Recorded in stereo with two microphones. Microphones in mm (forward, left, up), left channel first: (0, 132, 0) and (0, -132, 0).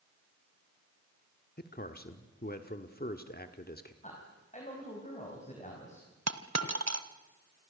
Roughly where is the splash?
I don't hear a splash.